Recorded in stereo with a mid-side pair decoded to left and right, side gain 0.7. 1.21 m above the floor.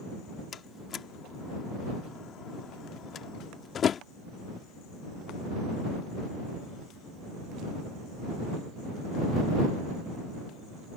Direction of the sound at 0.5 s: 35° left.